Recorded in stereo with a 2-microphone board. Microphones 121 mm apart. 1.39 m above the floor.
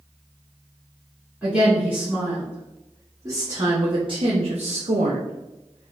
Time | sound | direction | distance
1.4 | a woman speaking | 10° right (ahead or behind) | 2.0 m